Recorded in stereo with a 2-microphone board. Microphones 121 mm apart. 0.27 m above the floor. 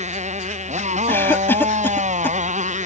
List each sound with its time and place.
0.0 s a motorcycle: 75° right (ahead or behind); by 2.9 s 80° right
1.1 s a cough: 20° left (ahead or behind)